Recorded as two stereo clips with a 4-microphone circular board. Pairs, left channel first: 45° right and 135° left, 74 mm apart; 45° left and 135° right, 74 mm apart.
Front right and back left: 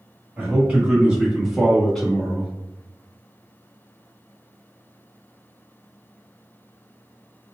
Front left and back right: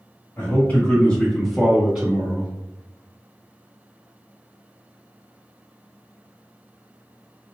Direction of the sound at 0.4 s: 80° left.